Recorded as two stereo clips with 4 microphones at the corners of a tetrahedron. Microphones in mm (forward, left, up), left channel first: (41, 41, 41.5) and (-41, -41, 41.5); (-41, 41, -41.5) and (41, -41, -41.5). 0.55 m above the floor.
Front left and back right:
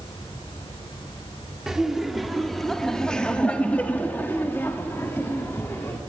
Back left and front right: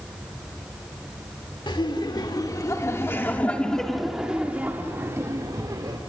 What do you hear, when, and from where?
1.7 s laughter: 140° left, 1.5 m; by 6.0 s 15° right, 1.5 m